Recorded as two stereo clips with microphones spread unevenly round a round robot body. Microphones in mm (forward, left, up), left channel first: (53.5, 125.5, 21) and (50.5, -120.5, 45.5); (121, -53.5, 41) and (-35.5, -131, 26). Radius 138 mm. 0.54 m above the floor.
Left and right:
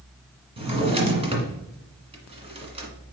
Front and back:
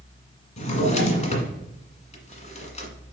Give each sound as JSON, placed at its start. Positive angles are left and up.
{"t": 0.6, "sound": "a drawer", "azimuth_deg": -25, "distance_m": 1.8}